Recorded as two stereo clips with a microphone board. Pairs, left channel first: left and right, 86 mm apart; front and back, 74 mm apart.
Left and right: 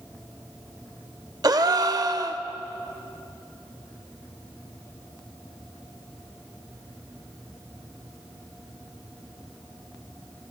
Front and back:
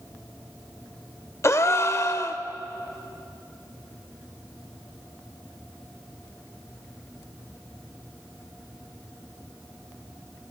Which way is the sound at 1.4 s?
50° right.